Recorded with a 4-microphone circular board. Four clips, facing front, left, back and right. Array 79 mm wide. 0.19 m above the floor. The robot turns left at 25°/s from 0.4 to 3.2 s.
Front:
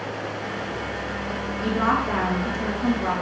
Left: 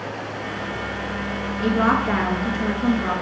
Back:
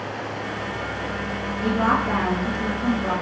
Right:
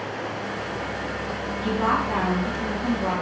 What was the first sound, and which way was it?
A woman speaking, 100° left.